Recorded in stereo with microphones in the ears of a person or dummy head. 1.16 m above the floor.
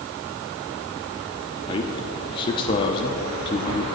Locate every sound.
1.7 s a man speaking: 30° left (ahead or behind), 0.9 m